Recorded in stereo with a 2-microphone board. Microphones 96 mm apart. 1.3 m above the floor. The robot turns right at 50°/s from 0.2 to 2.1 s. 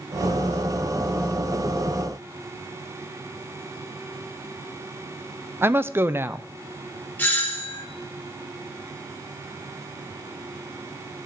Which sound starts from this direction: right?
A woman speaking, at 5.6 s.